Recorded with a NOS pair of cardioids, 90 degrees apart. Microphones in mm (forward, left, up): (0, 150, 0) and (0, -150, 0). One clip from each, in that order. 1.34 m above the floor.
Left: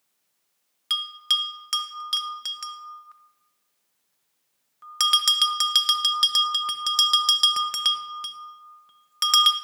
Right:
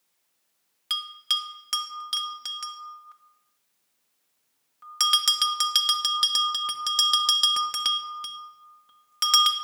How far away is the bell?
About 1.3 m.